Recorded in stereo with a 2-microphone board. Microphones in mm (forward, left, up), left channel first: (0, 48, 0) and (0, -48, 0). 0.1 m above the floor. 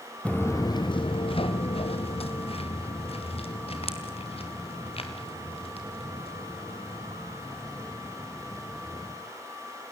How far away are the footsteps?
About 0.7 m.